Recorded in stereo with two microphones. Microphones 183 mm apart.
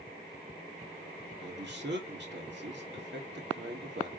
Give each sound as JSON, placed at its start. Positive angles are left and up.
{"t": 1.4, "sound": "a man speaking", "side_deg": -70, "distance_m": 1.6}